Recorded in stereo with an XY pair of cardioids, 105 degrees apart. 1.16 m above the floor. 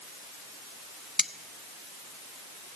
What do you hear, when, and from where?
1.2 s cutlery clinking: 5° left, 0.7 m